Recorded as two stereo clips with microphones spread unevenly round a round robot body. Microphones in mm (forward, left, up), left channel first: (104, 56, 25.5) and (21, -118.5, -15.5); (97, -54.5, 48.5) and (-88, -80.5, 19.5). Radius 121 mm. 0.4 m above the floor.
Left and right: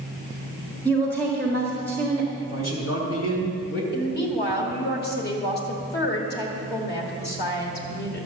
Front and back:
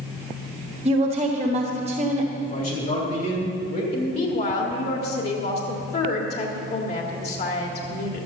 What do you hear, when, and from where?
0.8 s a woman speaking: 155° left, 1.3 m
2.4 s a man speaking: 60° left, 3 m
3.9 s a woman speaking: 40° left, 1.8 m